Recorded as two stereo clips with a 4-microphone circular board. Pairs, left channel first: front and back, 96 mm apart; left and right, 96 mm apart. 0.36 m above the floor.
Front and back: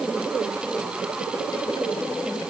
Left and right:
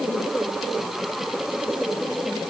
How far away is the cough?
I don't hear a cough.